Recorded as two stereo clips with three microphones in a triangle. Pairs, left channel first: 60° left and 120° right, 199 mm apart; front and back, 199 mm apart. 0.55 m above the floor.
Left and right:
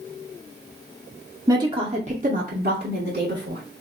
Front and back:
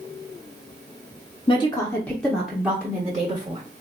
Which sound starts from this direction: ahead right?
A woman speaking, at 1.5 s.